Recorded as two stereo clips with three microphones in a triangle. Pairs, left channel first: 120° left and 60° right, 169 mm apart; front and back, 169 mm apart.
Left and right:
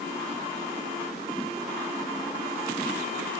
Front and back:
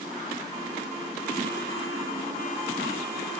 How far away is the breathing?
I don't hear breathing.